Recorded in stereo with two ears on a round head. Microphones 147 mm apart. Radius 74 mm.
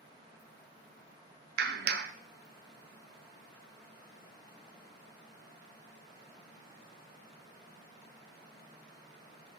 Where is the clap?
60° right (ahead or behind), 0.6 m.